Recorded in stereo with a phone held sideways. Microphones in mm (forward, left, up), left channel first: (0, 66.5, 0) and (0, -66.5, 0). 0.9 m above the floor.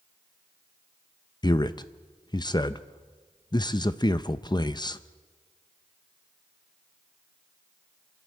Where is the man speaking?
30° left (ahead or behind), 0.5 m.